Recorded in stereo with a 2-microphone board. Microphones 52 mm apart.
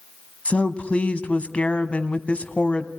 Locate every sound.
0.5 s a woman speaking: 25° left (ahead or behind), 1.1 m